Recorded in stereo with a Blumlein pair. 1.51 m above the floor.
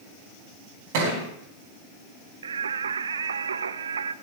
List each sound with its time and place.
0.9 s a thud: 50° right, 5 m
2.4 s singing: 70° right, 0.6 m